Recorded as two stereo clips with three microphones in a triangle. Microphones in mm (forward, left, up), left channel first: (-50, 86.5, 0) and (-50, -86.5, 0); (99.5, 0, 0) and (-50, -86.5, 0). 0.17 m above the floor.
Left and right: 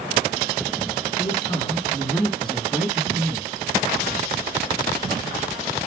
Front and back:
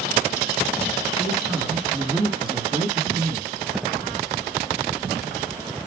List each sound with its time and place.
1.2 s a man speaking: 120° left, 1.8 m; by 3.5 s 160° right, 2.0 m